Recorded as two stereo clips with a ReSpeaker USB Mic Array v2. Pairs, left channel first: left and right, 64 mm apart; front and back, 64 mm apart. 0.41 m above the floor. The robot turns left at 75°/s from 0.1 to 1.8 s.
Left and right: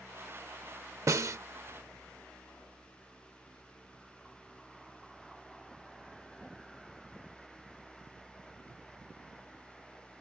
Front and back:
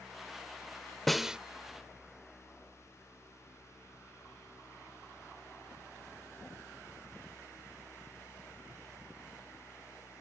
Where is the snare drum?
85° right; by 1.4 s 110° right.